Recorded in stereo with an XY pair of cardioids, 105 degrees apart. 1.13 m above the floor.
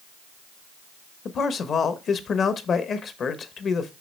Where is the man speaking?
50° left, 1.0 m.